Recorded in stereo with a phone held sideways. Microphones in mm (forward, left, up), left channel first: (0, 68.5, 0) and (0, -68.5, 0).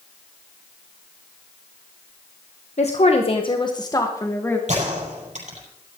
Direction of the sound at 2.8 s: 55° left (ahead or behind).